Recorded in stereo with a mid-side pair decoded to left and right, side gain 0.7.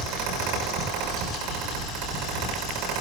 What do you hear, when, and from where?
0.0 s a fan: 70° right, 6 m